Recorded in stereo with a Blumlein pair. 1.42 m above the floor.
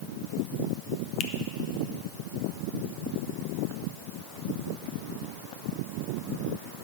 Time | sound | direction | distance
1.2 | a finger snap | 30° left | 0.6 m